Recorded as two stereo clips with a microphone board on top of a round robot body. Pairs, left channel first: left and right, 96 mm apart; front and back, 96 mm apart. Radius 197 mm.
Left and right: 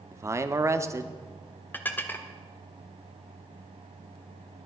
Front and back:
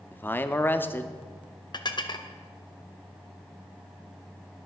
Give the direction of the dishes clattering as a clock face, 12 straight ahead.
11 o'clock.